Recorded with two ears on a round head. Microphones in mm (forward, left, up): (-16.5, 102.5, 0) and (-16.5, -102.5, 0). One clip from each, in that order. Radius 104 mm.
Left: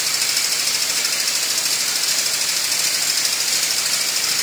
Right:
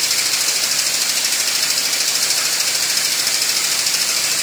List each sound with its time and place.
Only background noise.